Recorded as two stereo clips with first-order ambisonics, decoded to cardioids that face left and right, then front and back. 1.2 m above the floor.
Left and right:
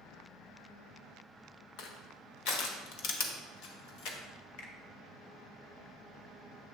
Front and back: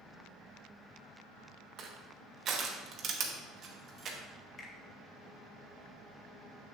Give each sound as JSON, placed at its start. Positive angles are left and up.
{"t": 1.8, "sound": "crushing", "azimuth_deg": 120, "distance_m": 0.9}
{"t": 4.6, "sound": "a finger snap", "azimuth_deg": 65, "distance_m": 1.0}